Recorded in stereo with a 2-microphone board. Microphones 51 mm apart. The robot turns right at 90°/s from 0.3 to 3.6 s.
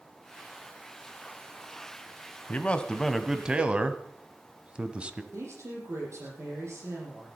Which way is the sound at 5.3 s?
70° right (ahead or behind).